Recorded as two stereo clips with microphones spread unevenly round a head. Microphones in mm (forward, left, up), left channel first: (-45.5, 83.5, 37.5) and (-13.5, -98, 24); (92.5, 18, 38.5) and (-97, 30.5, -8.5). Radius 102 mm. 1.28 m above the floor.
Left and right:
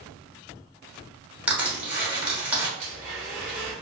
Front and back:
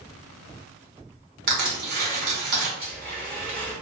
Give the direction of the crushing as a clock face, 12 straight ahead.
5 o'clock.